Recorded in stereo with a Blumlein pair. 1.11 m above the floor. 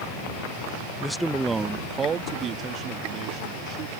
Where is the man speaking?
5° left; by 4.0 s 35° right.